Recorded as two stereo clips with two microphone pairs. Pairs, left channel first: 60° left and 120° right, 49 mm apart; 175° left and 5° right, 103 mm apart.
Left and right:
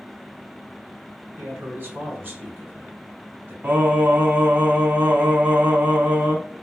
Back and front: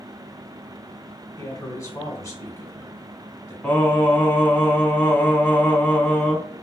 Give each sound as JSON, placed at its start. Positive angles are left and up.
{"t": 1.4, "sound": "a man speaking", "azimuth_deg": -150, "distance_m": 1.8}
{"t": 3.6, "sound": "singing", "azimuth_deg": -120, "distance_m": 1.6}